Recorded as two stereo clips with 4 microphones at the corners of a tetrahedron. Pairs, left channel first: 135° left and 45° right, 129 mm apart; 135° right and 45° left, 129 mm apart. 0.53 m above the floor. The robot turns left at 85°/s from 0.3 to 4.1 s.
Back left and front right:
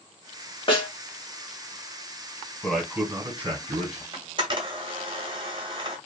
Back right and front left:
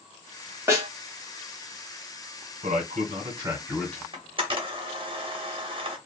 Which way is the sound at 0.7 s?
110° left.